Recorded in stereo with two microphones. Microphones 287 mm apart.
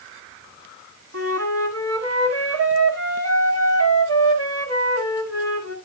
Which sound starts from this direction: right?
A flute, at 1.1 s.